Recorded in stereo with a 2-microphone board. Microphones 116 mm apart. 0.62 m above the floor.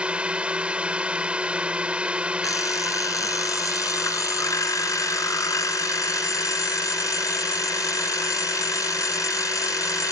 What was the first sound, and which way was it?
A drone, 10° right (ahead or behind).